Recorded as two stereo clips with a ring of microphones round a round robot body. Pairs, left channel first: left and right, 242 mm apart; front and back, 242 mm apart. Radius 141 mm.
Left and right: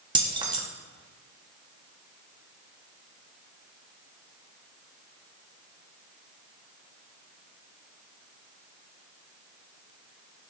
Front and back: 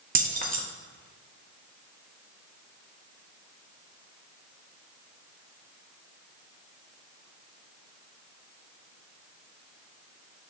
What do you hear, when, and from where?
0.1 s keys jangling: 150° right, 0.9 m